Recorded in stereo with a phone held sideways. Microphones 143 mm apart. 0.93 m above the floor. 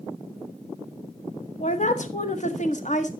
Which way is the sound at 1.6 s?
55° left (ahead or behind).